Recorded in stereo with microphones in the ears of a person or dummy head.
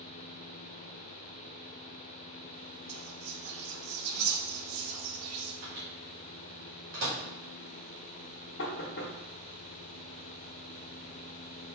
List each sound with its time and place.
2.9 s whispering: 75° right (ahead or behind), 0.7 m
5.6 s a microwave: 65° right (ahead or behind), 1.9 m
8.6 s knocking: 55° left (ahead or behind), 1.0 m